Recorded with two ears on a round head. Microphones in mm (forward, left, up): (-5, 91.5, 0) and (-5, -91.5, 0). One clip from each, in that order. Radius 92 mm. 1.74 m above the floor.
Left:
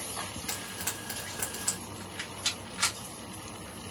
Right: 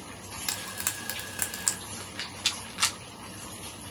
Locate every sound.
0.5 s frying: 70° right (ahead or behind), 1.5 m
2.0 s a rattle: 25° right (ahead or behind), 1.1 m